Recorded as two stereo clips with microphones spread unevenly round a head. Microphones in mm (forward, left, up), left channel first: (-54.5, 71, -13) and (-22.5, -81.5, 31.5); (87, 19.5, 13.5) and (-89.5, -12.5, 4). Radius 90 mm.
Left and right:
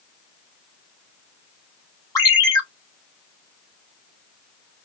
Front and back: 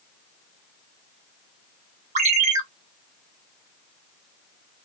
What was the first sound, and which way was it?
A ringtone, straight behind.